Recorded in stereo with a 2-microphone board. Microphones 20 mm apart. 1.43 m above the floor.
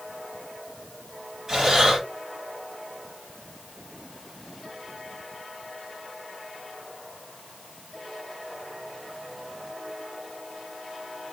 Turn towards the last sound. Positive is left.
turn(degrees=-25)  # may be behind; listen again after turning